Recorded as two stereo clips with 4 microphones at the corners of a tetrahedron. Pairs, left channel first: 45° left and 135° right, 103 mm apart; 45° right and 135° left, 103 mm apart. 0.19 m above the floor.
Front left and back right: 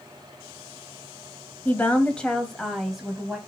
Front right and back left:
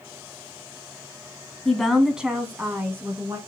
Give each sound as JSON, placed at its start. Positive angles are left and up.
{"t": 1.6, "sound": "a woman speaking", "azimuth_deg": 25, "distance_m": 1.5}